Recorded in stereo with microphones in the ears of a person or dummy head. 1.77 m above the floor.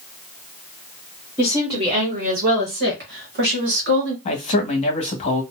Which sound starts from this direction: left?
A man speaking, at 4.2 s.